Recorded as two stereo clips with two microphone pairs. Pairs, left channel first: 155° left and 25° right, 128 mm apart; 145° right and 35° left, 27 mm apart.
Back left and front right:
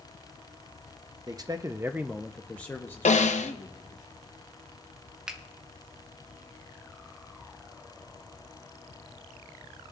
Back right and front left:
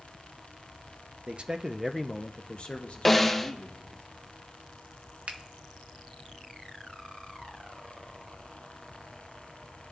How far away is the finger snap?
About 0.8 m.